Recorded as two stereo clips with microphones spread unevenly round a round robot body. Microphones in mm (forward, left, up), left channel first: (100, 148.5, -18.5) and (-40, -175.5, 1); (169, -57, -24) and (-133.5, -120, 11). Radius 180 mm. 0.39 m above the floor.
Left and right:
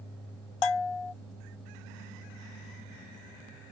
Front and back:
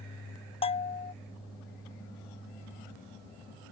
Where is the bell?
90° left.